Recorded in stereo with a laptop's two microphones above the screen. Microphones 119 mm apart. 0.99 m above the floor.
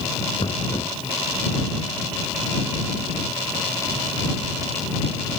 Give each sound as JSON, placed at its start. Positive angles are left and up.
{"t": 0.4, "sound": "knocking", "side_deg": 45}